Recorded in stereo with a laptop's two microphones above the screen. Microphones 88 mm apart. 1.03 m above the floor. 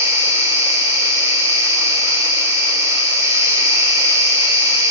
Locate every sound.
0.0 s an insect: 40° right (ahead or behind), 3 m